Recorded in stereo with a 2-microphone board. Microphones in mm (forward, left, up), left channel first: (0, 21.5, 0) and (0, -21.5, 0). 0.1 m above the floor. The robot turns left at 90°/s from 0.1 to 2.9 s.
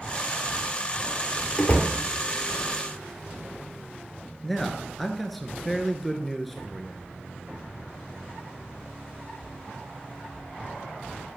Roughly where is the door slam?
Behind left.